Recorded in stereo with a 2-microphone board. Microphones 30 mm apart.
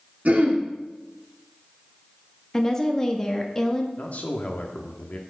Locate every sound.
0.2 s throat clearing: 50° right (ahead or behind), 1.3 m
2.5 s a woman speaking: 20° left (ahead or behind), 0.7 m
4.0 s a man speaking: 50° left (ahead or behind), 0.9 m